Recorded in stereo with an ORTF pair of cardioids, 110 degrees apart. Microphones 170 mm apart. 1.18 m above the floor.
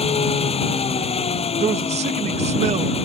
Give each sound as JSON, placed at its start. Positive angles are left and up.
{"t": 0.0, "sound": "an engine running", "azimuth_deg": 35}
{"t": 1.6, "sound": "a man speaking", "azimuth_deg": -40}